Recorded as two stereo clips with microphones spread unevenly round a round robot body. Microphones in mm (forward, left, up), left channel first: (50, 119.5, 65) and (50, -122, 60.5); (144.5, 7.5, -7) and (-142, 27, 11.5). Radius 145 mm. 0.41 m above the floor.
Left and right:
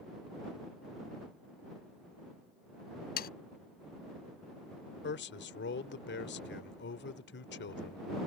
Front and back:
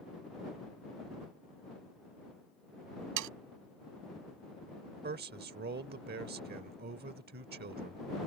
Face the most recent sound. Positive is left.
turn(degrees=125)